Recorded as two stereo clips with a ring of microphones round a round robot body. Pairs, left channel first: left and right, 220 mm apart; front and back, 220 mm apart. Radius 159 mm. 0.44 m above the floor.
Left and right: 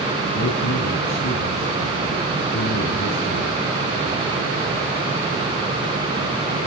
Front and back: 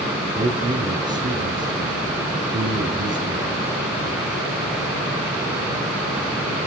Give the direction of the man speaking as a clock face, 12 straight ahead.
8 o'clock.